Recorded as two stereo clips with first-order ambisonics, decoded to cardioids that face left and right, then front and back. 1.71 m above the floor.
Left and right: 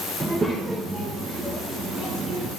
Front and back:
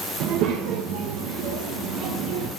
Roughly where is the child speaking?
Behind.